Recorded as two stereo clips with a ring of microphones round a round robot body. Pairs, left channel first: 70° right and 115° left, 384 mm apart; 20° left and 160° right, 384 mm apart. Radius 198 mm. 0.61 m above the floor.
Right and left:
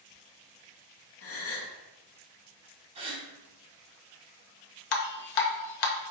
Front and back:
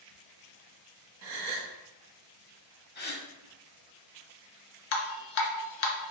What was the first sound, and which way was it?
A gasp, 120° right.